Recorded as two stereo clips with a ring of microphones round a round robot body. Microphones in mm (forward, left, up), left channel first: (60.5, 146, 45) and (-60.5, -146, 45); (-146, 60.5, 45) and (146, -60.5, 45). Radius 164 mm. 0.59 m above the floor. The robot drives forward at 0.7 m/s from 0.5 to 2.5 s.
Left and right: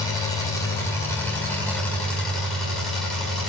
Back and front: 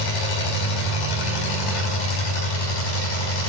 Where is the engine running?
150° left, 4 m; by 3.5 s 155° left, 5 m.